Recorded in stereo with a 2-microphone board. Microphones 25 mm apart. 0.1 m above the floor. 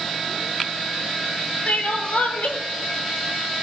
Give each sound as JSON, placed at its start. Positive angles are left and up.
{"t": 1.7, "sound": "crying", "side_deg": 60, "distance_m": 1.0}